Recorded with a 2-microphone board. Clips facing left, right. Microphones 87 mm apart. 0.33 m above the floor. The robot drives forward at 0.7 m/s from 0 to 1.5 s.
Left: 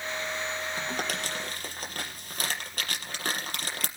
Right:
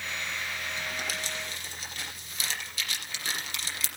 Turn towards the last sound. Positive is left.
turn(degrees=55)  # may be behind; listen again after turning